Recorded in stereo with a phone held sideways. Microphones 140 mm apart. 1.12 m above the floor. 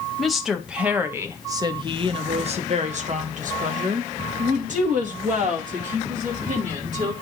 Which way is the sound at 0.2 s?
Centre (ahead or behind).